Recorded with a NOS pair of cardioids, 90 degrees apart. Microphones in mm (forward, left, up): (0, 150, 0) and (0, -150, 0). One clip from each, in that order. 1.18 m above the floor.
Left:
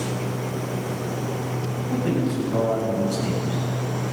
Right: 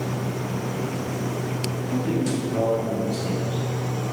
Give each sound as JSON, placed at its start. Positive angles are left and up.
{"t": 1.9, "sound": "a man speaking", "azimuth_deg": 70, "distance_m": 8.0}